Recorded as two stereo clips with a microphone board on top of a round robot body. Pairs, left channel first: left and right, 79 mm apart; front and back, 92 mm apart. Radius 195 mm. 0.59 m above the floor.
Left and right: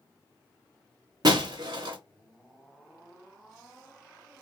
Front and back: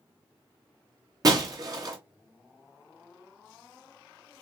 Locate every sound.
1.2 s breaking glass: 130° right, 0.7 m